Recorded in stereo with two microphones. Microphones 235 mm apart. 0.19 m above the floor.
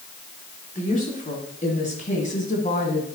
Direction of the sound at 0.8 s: 30° left (ahead or behind).